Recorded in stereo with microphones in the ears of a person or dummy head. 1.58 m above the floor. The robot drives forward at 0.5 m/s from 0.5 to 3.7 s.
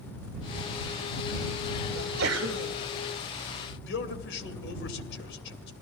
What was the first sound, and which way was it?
A sneeze, 90° right.